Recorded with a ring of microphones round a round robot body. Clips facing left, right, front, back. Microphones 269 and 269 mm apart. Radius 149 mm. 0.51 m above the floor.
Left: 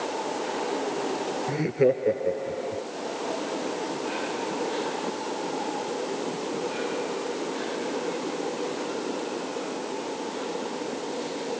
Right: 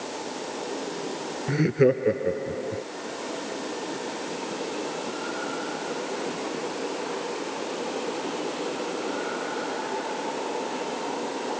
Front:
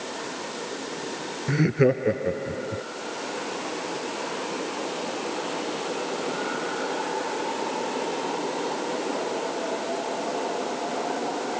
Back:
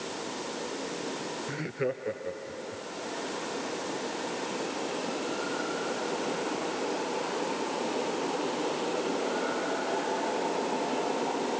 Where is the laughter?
25° right.